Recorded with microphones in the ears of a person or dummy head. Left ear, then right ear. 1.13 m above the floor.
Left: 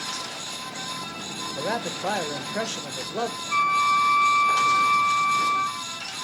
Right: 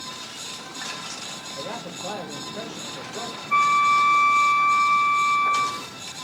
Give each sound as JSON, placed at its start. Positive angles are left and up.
{"t": 1.6, "sound": "a man speaking", "side_deg": 70, "distance_m": 0.7}
{"t": 3.5, "sound": "a flute", "side_deg": -45, "distance_m": 1.4}